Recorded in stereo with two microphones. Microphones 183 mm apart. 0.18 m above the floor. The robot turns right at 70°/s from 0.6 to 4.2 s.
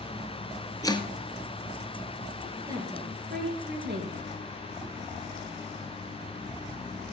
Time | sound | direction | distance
0.8 | chopping | 15° left (ahead or behind) | 1.1 m
2.7 | a woman speaking | 165° right | 3.5 m